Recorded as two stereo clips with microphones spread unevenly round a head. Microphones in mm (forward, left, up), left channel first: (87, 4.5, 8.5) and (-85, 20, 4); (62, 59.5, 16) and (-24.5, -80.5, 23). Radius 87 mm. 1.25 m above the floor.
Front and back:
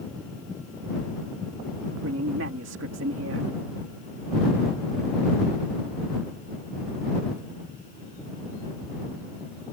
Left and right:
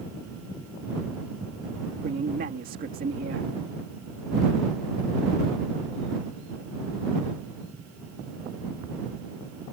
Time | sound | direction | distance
2.0 | a man speaking | 165° right | ?